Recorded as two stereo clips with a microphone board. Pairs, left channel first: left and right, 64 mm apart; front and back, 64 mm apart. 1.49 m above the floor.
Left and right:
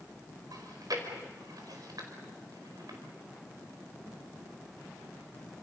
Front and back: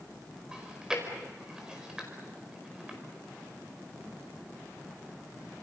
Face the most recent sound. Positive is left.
turn(degrees=-100)